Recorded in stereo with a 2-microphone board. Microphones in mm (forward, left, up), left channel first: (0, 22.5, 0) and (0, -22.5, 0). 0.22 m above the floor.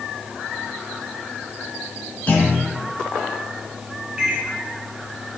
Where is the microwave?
15° right (ahead or behind), 2 m.